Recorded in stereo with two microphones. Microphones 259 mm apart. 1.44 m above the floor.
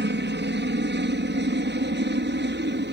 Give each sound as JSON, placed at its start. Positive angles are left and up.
{"t": 0.0, "sound": "a helicopter", "side_deg": -45}